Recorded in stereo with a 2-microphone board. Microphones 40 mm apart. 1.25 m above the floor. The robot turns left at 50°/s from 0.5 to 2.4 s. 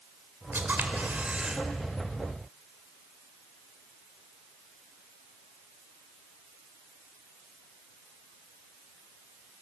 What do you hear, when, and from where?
0.5 s a camera shutter: 110° right, 2 m; by 1.6 s 165° right, 2 m